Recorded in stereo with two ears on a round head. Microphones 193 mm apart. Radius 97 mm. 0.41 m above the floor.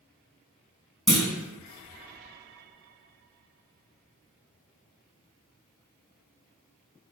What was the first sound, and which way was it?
A clunk, centre (ahead or behind).